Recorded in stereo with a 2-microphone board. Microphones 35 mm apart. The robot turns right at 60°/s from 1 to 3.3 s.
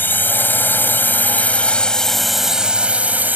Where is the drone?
105° left; by 3.4 s 120° right.